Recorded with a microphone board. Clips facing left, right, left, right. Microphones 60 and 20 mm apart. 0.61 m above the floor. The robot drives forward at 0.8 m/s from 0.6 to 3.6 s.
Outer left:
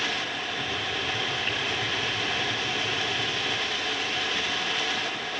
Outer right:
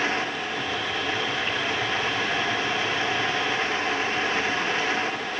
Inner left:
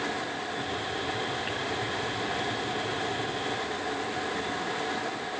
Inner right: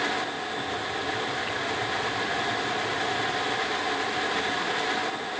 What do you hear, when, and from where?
Only background noise.